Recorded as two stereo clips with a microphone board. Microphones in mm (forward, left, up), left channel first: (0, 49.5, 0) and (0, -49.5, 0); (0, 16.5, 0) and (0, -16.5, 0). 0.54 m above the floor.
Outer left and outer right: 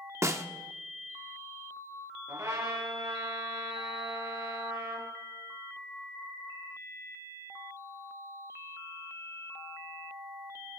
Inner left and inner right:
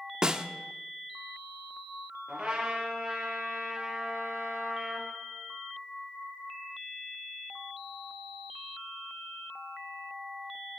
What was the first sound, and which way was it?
A snare drum, 30° right (ahead or behind).